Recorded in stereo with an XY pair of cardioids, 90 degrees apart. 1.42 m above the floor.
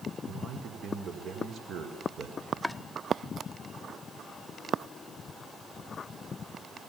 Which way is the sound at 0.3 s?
65° right.